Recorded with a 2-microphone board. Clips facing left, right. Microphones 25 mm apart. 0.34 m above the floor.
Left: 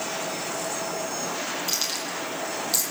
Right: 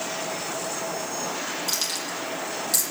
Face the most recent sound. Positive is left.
turn(degrees=15)  # may be behind; listen again after turning